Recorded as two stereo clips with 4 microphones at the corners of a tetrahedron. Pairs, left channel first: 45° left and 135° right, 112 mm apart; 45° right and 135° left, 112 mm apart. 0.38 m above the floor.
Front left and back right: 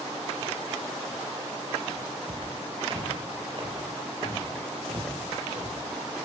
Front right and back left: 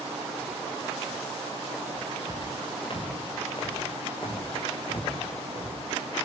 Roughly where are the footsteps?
Right.